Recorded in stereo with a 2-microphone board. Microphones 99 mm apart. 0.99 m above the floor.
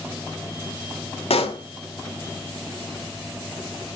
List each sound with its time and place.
1.3 s a pop: 80° left, 1.6 m